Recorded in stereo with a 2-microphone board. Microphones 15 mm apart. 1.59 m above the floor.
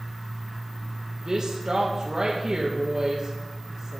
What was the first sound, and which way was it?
A woman speaking, 40° right (ahead or behind).